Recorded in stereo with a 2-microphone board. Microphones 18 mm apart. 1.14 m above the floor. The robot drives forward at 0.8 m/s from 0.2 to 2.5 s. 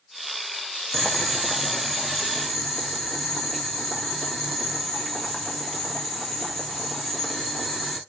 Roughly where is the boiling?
Centre.